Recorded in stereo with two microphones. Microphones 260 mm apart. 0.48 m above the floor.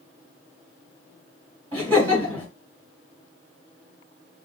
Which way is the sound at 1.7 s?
5° left (ahead or behind).